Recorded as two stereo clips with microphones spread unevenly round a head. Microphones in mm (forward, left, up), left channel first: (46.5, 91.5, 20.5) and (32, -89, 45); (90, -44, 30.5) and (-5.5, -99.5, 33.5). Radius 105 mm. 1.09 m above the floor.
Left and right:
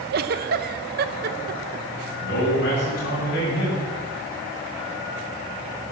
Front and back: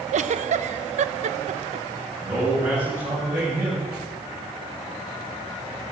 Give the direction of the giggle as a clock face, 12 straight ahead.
5 o'clock.